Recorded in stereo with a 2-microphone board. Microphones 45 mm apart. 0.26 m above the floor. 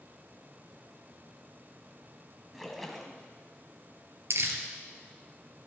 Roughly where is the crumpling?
Right.